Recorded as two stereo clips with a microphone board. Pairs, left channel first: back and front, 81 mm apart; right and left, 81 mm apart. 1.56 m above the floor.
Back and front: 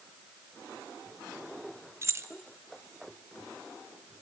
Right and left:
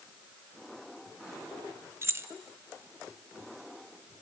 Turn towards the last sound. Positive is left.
turn(degrees=45)